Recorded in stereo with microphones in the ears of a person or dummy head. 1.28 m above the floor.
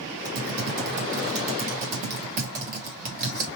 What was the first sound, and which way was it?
Typing on a keyboard, 40° right (ahead or behind).